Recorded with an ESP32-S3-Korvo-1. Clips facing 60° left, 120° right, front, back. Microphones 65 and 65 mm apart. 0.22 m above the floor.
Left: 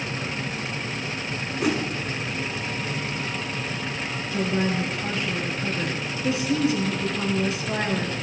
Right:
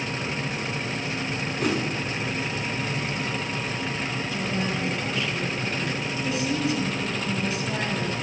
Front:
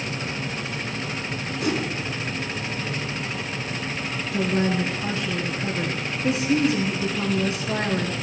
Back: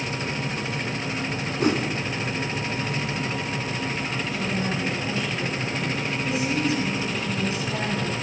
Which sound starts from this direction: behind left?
A whoosh, at 1.6 s.